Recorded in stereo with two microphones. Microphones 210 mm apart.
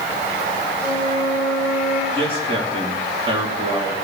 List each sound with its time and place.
0.8 s a flute: 50° right (ahead or behind), 7.5 m
2.1 s a man speaking: 30° right (ahead or behind), 3.5 m